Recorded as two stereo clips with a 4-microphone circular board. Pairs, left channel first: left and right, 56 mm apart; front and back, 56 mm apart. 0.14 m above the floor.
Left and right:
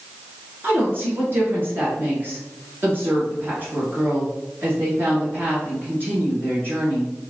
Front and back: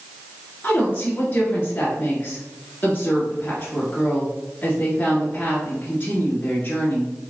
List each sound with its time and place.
0.6 s a woman speaking: 55° right, 1.6 m